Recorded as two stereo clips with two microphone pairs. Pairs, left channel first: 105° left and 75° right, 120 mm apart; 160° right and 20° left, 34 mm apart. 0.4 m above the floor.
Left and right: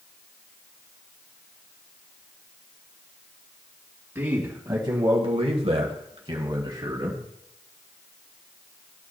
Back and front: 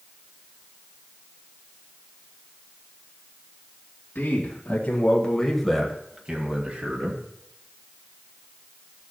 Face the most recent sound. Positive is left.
turn(degrees=-15)